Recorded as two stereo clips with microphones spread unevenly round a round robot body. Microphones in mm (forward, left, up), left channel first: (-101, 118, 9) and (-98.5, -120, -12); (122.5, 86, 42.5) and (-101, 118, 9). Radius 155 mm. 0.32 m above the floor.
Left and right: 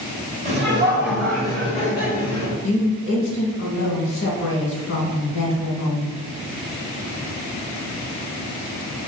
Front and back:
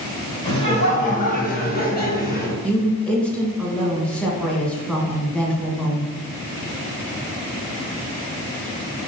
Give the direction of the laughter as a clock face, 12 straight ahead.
3 o'clock.